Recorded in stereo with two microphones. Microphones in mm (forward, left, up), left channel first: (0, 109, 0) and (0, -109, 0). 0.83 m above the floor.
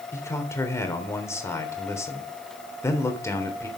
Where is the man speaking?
10° left (ahead or behind), 3.5 m.